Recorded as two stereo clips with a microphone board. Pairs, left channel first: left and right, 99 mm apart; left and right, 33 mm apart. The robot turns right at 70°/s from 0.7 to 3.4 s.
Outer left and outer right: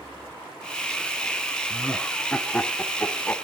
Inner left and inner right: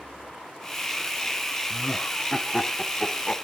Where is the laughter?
5° right (ahead or behind), 1.0 m; by 3.4 s 20° left (ahead or behind), 1.0 m.